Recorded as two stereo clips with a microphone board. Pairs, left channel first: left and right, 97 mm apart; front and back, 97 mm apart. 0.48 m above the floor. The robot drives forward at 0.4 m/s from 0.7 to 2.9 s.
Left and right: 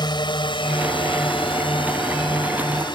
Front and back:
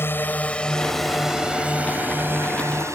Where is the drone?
65° left; by 2.9 s 125° left.